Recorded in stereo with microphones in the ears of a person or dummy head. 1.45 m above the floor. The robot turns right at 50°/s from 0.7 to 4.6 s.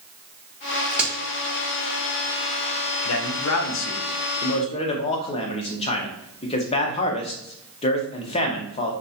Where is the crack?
10° right (ahead or behind), 0.8 m; by 1.1 s centre (ahead or behind), 0.8 m.